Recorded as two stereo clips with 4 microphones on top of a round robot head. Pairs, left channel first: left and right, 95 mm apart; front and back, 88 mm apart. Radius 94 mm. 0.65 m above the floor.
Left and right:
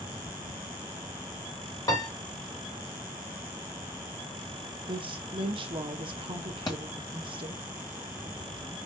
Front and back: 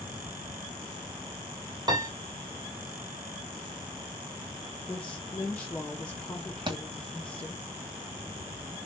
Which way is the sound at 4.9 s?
70° right.